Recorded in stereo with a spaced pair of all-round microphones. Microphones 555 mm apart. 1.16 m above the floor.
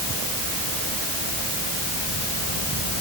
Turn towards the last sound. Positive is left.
No sound to turn to.